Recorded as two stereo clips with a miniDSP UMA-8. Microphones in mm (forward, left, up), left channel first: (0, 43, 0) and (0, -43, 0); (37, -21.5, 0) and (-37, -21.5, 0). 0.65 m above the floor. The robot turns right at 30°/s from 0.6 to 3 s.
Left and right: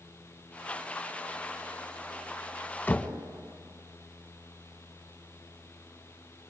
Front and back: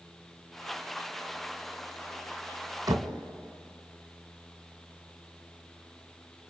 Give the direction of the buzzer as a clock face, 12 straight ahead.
No buzzer in this recording.